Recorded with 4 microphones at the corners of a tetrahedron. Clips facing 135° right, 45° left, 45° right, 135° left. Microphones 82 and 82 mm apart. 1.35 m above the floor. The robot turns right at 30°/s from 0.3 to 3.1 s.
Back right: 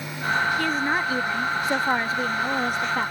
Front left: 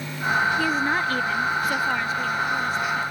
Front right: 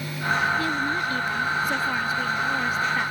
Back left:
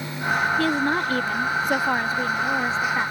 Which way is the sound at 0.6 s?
130° left.